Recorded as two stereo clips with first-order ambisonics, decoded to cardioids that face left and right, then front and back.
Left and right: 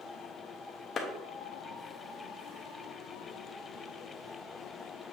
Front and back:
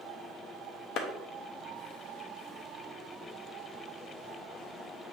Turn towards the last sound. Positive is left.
turn(degrees=30)